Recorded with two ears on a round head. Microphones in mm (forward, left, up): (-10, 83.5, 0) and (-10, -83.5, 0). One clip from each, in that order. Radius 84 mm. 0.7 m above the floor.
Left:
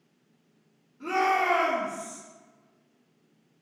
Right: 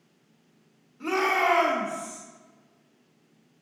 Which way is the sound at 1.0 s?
30° right (ahead or behind).